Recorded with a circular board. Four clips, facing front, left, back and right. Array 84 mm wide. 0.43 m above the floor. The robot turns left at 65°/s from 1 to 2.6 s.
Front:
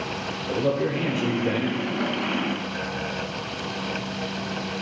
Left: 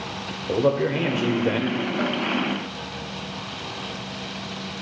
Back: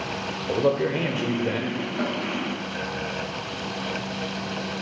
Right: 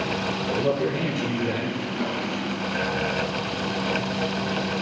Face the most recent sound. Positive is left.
turn(degrees=85)